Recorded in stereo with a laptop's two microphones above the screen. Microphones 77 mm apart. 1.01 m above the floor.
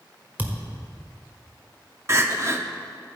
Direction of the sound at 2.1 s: 35° right (ahead or behind).